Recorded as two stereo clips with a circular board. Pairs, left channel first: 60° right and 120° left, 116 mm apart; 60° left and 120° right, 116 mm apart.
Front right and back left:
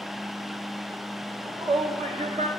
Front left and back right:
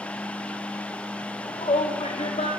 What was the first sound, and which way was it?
A shout, 85° left.